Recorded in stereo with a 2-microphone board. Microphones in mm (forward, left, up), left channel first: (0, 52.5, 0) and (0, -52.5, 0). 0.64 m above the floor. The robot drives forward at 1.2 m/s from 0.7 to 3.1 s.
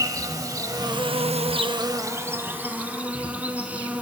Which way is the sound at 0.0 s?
35° right (ahead or behind).